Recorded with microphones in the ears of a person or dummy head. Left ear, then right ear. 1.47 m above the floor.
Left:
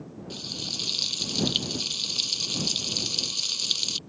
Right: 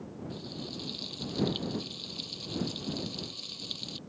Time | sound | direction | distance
0.3 | frying | 55° left (ahead or behind) | ?